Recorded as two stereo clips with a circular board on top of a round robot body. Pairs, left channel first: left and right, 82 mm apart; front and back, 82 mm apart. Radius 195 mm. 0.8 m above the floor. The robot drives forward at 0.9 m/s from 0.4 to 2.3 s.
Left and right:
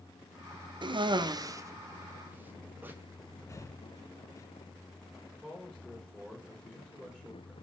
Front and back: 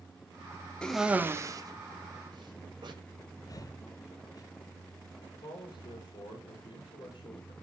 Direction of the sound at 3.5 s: 40° left.